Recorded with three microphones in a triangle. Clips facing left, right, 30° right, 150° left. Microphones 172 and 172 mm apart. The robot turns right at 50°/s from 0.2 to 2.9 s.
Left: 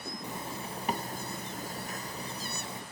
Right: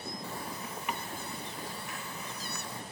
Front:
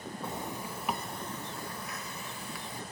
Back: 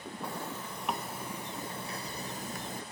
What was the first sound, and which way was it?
A zipper, 25° left.